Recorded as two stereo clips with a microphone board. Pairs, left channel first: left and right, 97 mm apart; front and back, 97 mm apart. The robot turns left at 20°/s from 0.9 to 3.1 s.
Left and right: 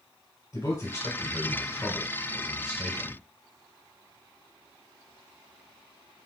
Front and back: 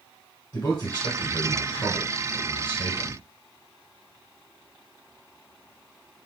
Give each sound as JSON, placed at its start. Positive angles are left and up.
{"t": 0.5, "sound": "a man speaking", "azimuth_deg": 55, "distance_m": 1.2}